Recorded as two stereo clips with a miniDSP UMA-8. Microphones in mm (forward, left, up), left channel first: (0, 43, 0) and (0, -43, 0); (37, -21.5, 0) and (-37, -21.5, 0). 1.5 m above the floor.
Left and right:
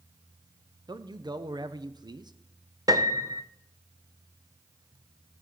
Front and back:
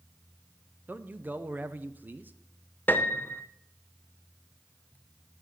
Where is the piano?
60° right, 0.6 m.